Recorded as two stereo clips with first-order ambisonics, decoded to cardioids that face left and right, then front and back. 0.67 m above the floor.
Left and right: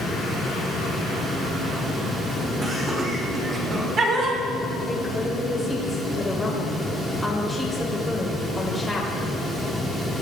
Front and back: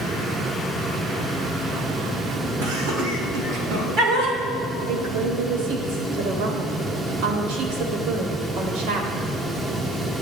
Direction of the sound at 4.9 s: 170° left.